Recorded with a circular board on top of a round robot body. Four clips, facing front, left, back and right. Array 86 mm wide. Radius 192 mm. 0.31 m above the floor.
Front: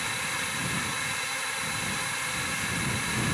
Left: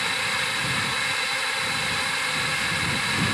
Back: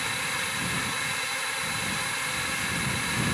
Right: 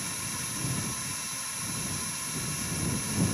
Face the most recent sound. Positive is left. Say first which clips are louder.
# left 12 dB, back 1 dB
turn(degrees=95)